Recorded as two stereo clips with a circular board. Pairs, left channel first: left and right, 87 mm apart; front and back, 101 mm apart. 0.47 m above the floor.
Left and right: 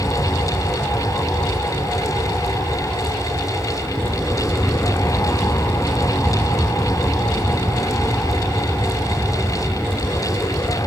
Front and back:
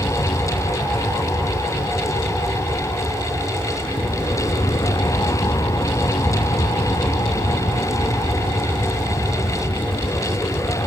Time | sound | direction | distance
0.0 | an aircraft | 25° left | ?